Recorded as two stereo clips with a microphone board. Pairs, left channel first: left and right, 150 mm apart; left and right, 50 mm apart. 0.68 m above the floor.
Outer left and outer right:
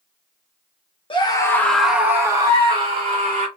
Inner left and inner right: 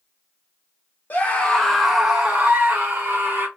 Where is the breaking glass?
I don't hear breaking glass.